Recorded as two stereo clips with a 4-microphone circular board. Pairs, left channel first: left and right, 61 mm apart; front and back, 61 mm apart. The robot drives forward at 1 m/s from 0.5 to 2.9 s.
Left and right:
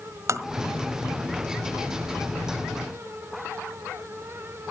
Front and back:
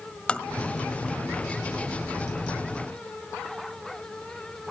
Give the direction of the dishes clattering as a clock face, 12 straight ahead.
No dishes clattering in this recording.